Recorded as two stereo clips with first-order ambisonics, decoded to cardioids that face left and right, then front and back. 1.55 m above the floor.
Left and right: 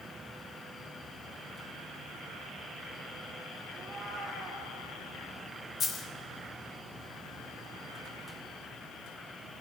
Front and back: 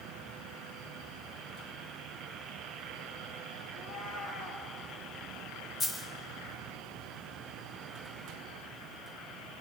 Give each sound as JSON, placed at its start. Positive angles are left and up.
{"t": 3.7, "sound": "a cat meowing", "azimuth_deg": -20, "distance_m": 6.5}
{"t": 5.8, "sound": "a dropped coin", "azimuth_deg": 50, "distance_m": 1.0}